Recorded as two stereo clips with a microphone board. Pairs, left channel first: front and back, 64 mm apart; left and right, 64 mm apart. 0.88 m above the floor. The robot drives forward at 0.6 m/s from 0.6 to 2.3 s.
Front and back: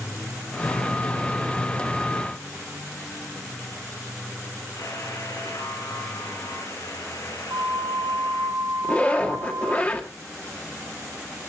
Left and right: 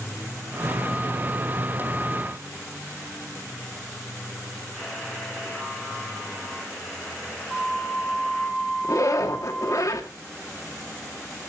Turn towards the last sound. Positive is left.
turn(degrees=65)